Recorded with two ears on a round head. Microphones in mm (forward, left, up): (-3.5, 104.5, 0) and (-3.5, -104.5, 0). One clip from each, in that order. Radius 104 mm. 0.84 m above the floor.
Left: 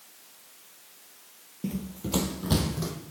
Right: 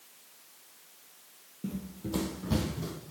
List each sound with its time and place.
1.6 s running footsteps: 20° left (ahead or behind), 0.9 m; by 2.9 s 40° left (ahead or behind), 1.9 m